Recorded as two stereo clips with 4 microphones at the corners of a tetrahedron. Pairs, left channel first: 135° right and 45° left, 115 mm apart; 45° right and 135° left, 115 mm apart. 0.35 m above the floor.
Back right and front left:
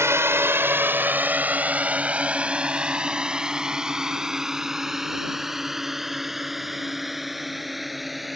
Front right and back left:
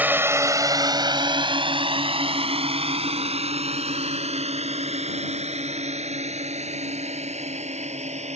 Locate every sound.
0.0 s a drone: 80° left; by 8.4 s 135° left